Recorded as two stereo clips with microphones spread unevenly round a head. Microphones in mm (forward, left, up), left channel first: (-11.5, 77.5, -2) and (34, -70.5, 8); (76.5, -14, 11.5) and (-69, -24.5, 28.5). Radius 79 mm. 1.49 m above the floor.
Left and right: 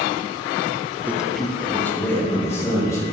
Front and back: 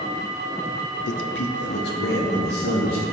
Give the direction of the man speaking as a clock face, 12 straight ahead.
12 o'clock.